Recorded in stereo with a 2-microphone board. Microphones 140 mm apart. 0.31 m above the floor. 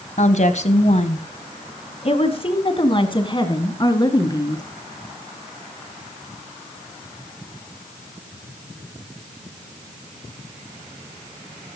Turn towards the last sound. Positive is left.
turn(degrees=30)  # may be behind; listen again after turning